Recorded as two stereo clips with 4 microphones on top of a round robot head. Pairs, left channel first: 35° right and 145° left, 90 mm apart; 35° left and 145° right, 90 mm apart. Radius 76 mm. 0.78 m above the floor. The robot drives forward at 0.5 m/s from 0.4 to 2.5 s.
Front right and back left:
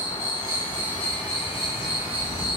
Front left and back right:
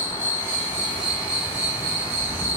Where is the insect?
80° right, 0.9 m; by 2.6 s 145° right, 1.3 m.